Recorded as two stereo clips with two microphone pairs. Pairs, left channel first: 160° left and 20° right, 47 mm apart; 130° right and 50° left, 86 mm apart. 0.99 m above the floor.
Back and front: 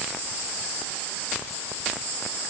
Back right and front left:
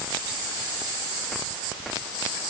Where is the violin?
No violin in this recording.